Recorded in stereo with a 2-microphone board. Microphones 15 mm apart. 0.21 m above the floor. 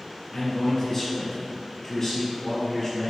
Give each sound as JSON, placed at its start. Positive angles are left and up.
{"t": 0.3, "sound": "a man speaking", "side_deg": 45, "distance_m": 1.6}